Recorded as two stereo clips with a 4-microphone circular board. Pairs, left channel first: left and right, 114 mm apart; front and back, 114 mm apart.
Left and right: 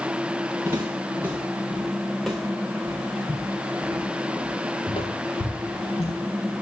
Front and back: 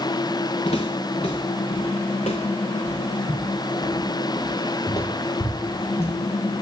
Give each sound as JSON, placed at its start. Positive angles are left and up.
{"t": 0.7, "sound": "footsteps", "azimuth_deg": -25, "distance_m": 1.9}